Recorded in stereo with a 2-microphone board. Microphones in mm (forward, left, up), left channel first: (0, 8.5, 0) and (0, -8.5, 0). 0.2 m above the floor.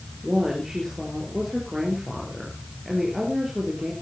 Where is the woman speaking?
30° right (ahead or behind), 4.5 m.